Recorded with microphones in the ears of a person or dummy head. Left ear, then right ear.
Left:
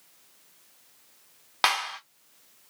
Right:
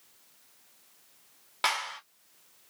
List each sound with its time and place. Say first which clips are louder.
1.6 s a clap: left 4 dB; 10° left (ahead or behind), 0.6 m